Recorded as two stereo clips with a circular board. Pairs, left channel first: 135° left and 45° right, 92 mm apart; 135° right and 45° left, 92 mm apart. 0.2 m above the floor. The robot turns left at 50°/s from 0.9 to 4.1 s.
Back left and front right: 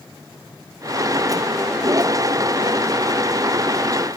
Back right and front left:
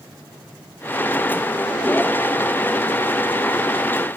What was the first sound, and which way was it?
Only background noise.